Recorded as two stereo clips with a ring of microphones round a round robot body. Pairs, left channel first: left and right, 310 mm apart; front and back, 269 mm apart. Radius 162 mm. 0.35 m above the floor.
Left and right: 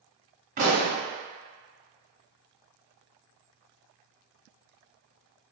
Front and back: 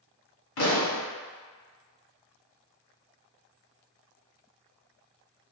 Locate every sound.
0.6 s a pop: 30° right, 1.5 m